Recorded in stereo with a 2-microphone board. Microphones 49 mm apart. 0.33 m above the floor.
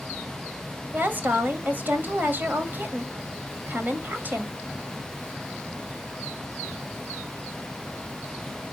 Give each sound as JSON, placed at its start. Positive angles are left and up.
{"t": 0.9, "sound": "a woman speaking", "side_deg": -40, "distance_m": 1.4}